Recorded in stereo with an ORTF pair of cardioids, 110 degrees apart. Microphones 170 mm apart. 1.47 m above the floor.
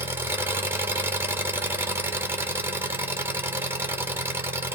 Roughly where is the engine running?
Ahead.